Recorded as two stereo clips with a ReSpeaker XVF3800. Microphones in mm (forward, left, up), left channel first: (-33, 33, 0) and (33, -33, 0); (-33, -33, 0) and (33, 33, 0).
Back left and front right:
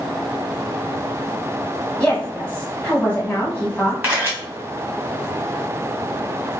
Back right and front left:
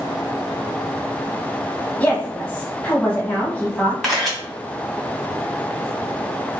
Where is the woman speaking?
175° right, 1.1 m.